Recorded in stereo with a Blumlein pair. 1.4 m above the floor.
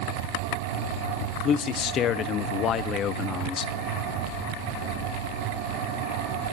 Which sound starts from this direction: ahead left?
A man speaking, at 1.4 s.